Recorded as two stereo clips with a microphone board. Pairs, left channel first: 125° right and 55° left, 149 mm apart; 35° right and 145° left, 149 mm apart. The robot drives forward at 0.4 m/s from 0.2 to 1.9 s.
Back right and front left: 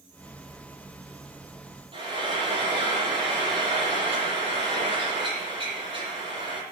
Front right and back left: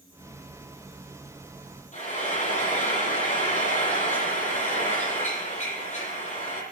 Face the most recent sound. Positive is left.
turn(degrees=0)